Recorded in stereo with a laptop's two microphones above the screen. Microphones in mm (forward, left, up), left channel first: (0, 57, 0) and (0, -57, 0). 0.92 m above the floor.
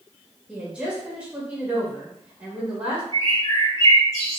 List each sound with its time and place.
0.5 s a woman speaking: 10° right (ahead or behind), 1.2 m
3.1 s a bird: 30° left (ahead or behind), 1.2 m